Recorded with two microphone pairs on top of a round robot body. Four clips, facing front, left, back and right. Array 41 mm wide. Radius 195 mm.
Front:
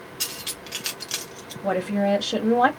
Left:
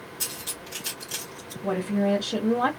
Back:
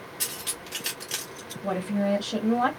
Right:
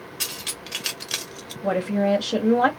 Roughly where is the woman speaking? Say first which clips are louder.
Right 3 dB, front 4 dB; ahead right.